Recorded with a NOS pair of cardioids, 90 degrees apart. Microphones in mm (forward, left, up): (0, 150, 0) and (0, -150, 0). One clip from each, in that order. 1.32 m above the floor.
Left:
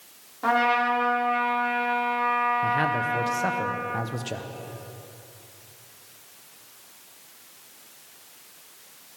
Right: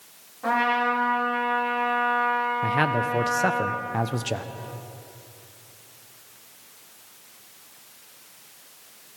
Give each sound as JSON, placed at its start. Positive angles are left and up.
{"t": 0.4, "sound": "a trumpet", "azimuth_deg": 45, "distance_m": 3.5}
{"t": 2.6, "sound": "a man speaking", "azimuth_deg": -20, "distance_m": 0.6}